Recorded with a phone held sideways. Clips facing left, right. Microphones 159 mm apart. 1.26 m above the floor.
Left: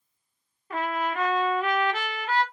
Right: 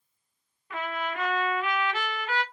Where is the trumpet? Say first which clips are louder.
Left 4 dB; 45° left (ahead or behind), 0.9 m.